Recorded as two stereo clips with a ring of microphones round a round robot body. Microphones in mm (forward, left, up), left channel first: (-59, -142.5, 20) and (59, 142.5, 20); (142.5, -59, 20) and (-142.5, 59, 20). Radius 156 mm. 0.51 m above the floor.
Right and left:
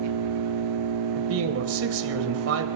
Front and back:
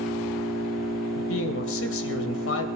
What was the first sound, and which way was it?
An engine running, 65° left.